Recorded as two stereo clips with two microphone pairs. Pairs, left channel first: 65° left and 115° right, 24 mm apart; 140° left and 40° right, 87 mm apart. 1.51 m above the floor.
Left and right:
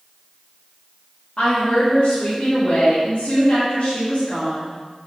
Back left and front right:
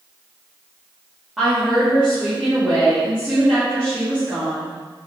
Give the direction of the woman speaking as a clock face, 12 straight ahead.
11 o'clock.